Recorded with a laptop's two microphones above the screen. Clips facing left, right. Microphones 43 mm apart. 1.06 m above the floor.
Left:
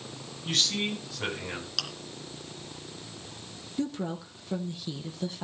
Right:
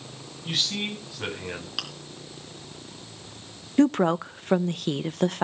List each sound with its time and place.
0.5 s a man speaking: 5° right (ahead or behind), 8 m
1.8 s chewing: 15° right (ahead or behind), 3 m
3.8 s a woman speaking: 65° right (ahead or behind), 0.5 m